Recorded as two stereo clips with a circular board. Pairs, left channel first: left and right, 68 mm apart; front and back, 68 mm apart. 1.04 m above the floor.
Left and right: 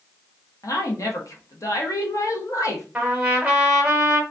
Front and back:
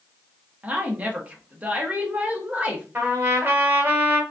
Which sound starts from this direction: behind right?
A trumpet, at 3.0 s.